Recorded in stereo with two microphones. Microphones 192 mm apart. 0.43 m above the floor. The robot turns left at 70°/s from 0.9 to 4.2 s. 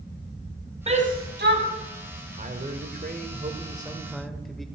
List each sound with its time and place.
0.9 s a shout: 35° right (ahead or behind), 3 m; by 1.6 s 70° right (ahead or behind), 3 m
2.4 s a man speaking: 55° right, 1.7 m; by 4.7 s straight behind, 1.7 m